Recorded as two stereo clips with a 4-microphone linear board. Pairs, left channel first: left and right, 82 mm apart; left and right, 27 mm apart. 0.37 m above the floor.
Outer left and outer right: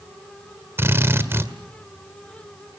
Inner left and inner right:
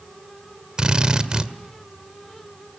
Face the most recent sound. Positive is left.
turn(degrees=-30)  # may be behind; listen again after turning